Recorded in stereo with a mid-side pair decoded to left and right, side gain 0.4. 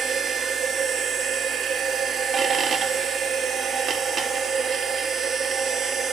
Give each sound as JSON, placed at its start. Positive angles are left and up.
{"t": 0.0, "sound": "a machine running", "azimuth_deg": -55, "distance_m": 0.8}